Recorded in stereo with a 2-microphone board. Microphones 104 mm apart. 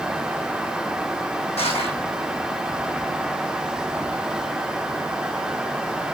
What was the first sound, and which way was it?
Crushing, 75° left (ahead or behind).